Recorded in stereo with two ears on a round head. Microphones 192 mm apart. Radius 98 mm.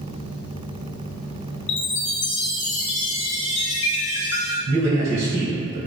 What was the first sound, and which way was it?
A chime, 55° left (ahead or behind).